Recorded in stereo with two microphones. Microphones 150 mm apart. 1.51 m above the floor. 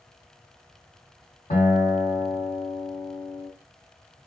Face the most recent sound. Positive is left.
turn(degrees=55)  # may be behind; listen again after turning